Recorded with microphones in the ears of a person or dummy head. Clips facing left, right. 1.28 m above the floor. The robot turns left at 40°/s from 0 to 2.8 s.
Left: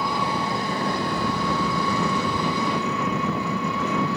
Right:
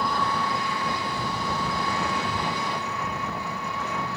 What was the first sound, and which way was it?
An engine running, straight behind.